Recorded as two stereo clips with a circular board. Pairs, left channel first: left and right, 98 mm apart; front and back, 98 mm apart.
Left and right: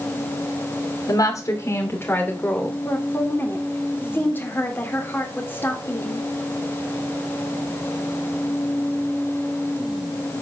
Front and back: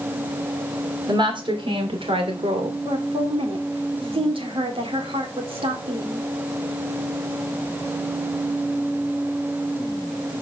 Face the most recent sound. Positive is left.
turn(degrees=160)